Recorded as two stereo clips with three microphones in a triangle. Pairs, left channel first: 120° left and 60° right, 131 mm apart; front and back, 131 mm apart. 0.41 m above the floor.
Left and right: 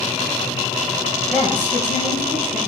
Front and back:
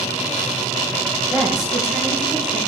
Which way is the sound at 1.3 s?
95° right.